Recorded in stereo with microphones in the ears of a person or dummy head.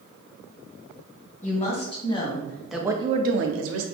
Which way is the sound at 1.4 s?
35° left (ahead or behind).